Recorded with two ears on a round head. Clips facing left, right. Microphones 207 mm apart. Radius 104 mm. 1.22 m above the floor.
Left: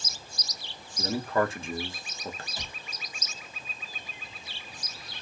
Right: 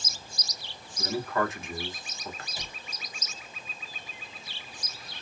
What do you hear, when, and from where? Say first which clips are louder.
1.0 s a man speaking: left 2 dB; 25° left (ahead or behind), 1.0 m
2.6 s a cupboard door: even; 10° right (ahead or behind), 1.4 m